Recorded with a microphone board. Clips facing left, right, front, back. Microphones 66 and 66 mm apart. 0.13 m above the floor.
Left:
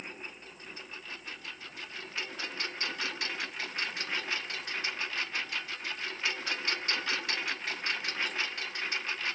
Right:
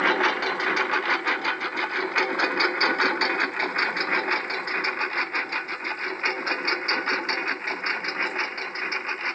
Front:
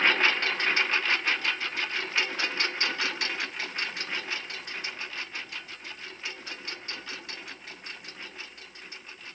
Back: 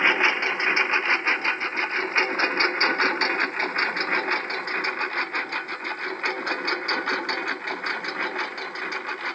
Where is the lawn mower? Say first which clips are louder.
Right 24 dB, back 3 dB; 105° right; by 9.4 s 145° right.